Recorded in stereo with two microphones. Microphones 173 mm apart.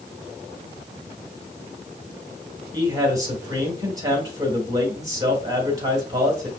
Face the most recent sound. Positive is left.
turn(degrees=-20)  # may be behind; listen again after turning